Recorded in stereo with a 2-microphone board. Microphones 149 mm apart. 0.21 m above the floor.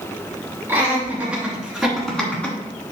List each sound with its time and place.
0.7 s laughter: 15° right (ahead or behind), 3.5 m; by 2.6 s 15° left (ahead or behind), 2 m